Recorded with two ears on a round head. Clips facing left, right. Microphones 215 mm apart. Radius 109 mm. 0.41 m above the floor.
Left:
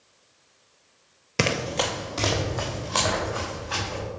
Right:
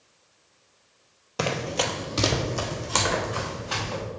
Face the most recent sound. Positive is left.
turn(degrees=-55)  # may be behind; listen again after turning